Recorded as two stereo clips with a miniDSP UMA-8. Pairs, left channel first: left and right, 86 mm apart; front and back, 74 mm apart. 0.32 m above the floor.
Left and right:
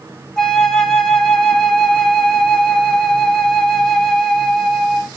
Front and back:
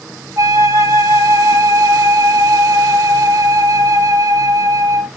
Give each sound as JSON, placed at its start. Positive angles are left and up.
{"t": 0.4, "sound": "a flute", "azimuth_deg": 170, "distance_m": 0.7}